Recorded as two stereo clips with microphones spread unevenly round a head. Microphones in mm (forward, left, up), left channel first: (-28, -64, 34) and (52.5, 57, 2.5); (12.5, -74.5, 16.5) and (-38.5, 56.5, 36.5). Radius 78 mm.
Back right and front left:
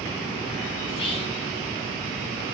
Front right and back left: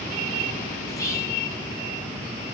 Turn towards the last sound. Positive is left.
turn(degrees=-85)